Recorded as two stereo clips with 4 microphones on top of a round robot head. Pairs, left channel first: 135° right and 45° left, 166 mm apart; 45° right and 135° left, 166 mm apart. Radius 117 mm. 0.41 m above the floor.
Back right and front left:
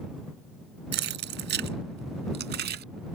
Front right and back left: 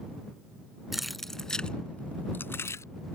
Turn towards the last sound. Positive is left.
turn(degrees=25)